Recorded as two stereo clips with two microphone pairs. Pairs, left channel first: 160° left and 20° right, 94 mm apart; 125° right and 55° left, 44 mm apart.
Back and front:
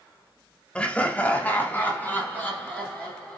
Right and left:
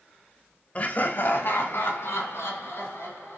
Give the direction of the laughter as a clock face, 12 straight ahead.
4 o'clock.